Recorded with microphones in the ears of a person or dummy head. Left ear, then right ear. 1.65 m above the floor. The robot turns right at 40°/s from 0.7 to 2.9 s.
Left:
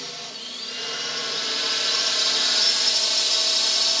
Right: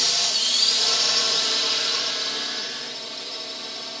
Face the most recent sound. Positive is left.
turn(degrees=45)